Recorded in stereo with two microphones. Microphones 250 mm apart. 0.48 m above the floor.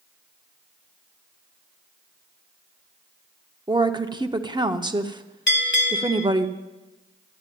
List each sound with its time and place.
3.7 s a woman speaking: 20° right (ahead or behind), 0.7 m
5.5 s a bell: 45° left (ahead or behind), 1.6 m